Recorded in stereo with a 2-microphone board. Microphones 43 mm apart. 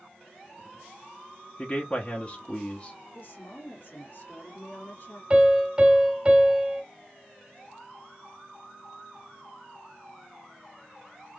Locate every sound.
1.6 s a man speaking: 30° left (ahead or behind), 0.9 m
3.1 s a woman speaking: 50° left (ahead or behind), 1.8 m
5.3 s a piano: 20° right (ahead or behind), 1.2 m